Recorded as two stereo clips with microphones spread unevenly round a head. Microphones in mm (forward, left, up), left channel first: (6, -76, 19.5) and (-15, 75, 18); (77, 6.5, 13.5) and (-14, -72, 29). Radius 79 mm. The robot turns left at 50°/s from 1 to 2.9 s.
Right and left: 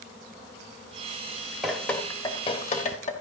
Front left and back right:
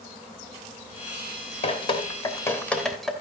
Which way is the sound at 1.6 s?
10° left.